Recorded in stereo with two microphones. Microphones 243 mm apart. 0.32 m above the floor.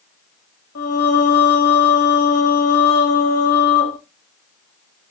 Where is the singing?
70° left (ahead or behind), 0.8 m.